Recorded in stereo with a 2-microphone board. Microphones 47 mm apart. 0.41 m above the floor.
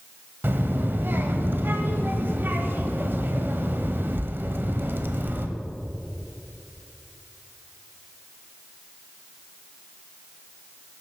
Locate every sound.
0.4 s a child speaking: 50° right (ahead or behind), 0.9 m